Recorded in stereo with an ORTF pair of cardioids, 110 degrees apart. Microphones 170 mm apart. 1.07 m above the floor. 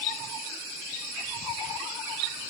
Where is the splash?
I don't hear a splash.